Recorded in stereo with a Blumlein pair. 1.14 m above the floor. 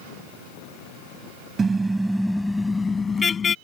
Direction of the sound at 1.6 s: 20° right.